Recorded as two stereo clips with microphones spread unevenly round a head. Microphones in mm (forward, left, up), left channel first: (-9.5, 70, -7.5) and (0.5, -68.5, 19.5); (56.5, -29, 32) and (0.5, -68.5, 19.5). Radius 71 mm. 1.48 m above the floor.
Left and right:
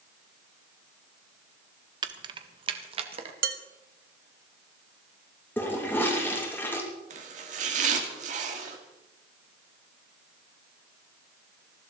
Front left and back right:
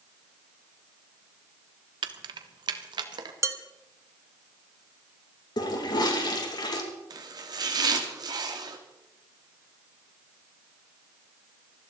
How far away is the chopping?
About 2.5 m.